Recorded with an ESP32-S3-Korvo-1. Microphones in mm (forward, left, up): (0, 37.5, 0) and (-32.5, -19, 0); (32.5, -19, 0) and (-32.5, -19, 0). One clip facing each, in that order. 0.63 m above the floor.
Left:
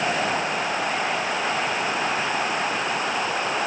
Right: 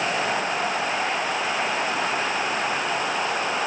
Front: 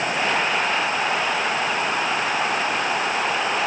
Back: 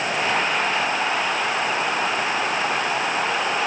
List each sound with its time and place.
Only background noise.